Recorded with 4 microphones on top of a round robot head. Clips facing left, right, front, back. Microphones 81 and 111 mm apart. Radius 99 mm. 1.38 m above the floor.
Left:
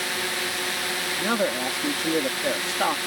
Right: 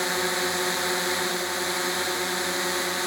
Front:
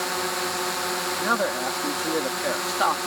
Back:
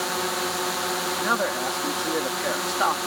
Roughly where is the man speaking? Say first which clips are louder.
Left 4 dB, front 1 dB; left.